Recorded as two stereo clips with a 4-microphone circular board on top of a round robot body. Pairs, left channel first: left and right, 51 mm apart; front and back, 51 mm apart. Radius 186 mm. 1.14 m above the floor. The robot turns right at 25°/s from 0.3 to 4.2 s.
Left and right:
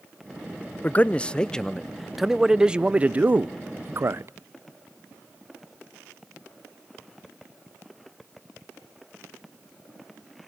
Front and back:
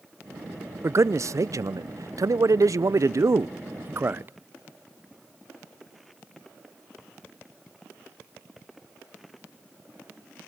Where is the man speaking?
150° left, 0.7 m; by 4.3 s 130° right, 0.7 m.